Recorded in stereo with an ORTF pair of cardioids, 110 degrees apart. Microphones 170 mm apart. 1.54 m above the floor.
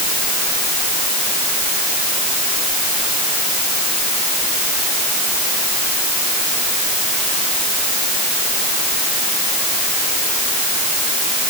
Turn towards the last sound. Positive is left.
No sound to turn to.